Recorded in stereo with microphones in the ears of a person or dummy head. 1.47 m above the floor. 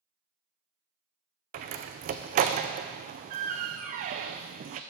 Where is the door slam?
45° right (ahead or behind), 0.5 m.